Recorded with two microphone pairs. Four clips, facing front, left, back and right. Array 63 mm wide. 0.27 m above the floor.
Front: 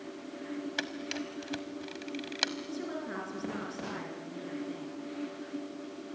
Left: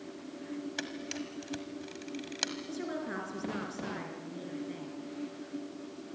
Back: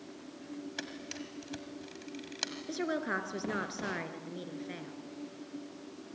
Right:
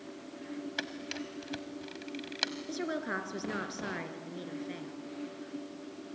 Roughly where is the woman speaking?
Behind.